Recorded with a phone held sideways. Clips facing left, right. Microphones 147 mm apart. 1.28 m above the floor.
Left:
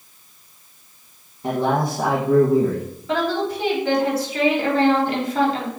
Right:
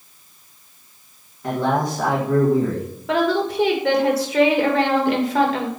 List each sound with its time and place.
1.4 s a man speaking: 25° left (ahead or behind), 1.7 m
3.1 s a woman speaking: 80° right, 1.8 m